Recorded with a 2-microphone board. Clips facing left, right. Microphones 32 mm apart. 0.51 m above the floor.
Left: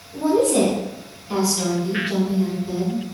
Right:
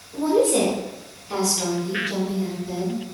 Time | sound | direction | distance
0.1 | a woman speaking | 15° right (ahead or behind) | 1.4 m